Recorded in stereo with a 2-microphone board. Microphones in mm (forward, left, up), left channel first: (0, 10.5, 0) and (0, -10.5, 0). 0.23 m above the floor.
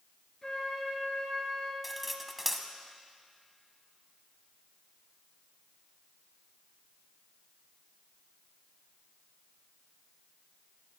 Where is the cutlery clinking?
10° right (ahead or behind), 1.0 m.